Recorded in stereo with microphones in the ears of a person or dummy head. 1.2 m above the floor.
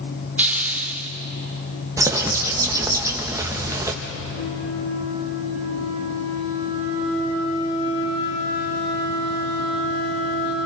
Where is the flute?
70° left (ahead or behind), 6.5 m.